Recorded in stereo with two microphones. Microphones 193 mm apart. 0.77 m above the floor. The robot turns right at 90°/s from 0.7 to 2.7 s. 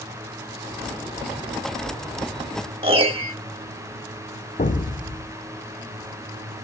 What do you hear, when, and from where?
2.8 s a piano: 30° right (ahead or behind), 1.4 m
4.6 s an explosion: 45° left (ahead or behind), 0.7 m